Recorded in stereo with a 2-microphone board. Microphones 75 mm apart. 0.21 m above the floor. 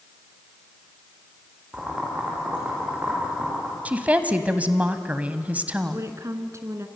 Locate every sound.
1.7 s boiling: 15° right (ahead or behind), 7.5 m
3.9 s a woman speaking: 20° right (ahead or behind), 1.2 m
5.9 s a woman speaking: 45° right (ahead or behind), 2 m